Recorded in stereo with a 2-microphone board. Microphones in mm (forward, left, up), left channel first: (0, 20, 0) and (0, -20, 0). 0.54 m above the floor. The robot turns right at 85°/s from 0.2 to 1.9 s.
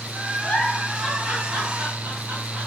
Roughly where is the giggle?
Left.